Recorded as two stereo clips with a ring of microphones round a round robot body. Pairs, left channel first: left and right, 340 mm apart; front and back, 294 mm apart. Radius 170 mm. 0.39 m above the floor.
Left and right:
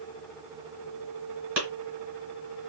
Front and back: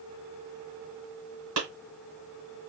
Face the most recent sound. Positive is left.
turn(degrees=-125)